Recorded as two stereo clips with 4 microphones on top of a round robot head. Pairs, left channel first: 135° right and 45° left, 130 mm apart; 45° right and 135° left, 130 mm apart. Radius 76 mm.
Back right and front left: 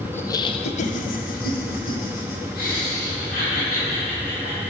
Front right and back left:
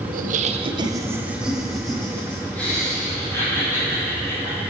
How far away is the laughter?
About 0.7 m.